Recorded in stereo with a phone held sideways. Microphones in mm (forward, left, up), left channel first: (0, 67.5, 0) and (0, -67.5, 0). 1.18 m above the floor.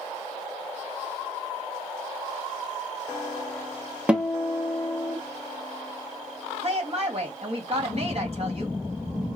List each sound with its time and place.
4.1 s a guitar: 5° right (ahead or behind), 0.8 m
6.6 s a woman speaking: 45° right (ahead or behind), 2 m